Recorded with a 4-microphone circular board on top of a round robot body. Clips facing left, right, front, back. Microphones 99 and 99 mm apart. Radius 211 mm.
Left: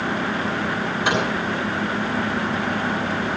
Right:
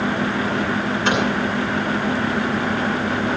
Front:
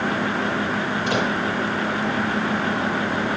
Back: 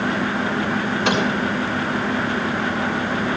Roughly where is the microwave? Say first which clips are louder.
Right 1 dB, back 3 dB; behind.